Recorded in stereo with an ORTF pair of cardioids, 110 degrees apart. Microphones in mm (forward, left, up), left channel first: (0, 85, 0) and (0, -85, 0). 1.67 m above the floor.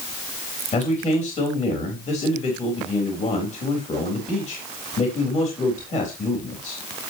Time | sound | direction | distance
0.7 | a man speaking | 40° left | 3.5 m